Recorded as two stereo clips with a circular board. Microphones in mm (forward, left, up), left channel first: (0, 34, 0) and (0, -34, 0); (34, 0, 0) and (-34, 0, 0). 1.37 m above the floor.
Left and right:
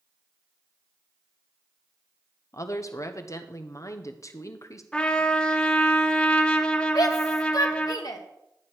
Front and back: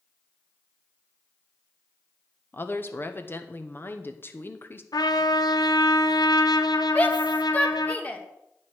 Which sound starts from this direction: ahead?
A trumpet, at 4.9 s.